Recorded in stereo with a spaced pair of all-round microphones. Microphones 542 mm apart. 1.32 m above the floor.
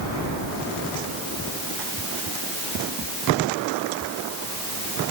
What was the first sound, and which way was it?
Only background noise.